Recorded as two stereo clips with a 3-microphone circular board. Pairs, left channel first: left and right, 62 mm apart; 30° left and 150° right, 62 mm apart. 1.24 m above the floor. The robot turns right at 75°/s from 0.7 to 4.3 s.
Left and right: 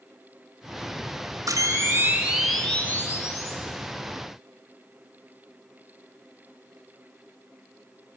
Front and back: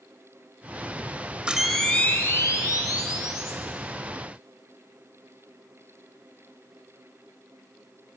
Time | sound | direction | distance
1.5 | a camera shutter | 75° right | 2.5 m